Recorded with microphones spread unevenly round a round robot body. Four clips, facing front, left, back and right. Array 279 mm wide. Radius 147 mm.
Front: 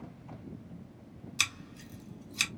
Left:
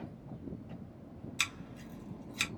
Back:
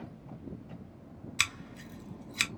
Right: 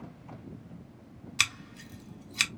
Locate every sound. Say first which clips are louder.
1.4 s scissors: right 8 dB, back 2 dB; 115° right, 0.8 m